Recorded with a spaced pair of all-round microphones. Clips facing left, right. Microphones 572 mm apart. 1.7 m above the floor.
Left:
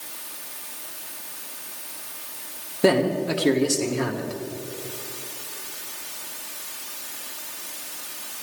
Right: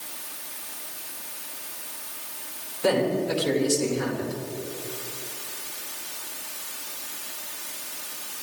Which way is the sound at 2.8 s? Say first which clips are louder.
Left 3 dB; 80° left.